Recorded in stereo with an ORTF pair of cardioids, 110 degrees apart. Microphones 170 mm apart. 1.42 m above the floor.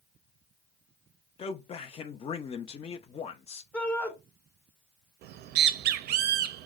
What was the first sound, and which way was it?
A man speaking, 35° left.